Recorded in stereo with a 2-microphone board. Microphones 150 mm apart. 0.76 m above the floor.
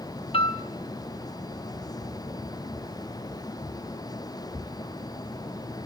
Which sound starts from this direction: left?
A piano, at 0.3 s.